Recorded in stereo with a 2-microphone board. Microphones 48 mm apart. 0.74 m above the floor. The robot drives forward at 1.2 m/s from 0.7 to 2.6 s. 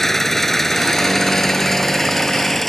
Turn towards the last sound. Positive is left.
turn(degrees=5)  # may be behind; listen again after turning